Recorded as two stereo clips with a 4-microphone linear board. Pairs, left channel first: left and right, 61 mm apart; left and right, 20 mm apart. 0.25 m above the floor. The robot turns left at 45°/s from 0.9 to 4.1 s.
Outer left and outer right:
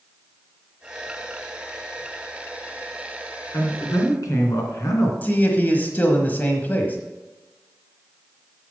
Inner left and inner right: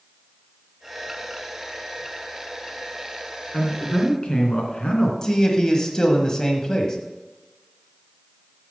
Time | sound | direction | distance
3.5 | a man speaking | 40° left (ahead or behind) | 3 m
5.2 | a man speaking | 30° left (ahead or behind) | 1.2 m